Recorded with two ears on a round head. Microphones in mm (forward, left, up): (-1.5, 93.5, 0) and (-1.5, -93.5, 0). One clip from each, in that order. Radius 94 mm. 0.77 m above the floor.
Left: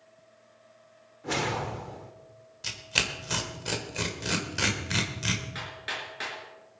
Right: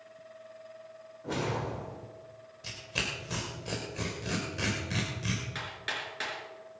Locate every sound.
1.2 s a whoosh: 60° left (ahead or behind), 1.5 m
2.6 s tearing paper: 45° left (ahead or behind), 1.9 m
5.5 s hammering: 10° right (ahead or behind), 4.5 m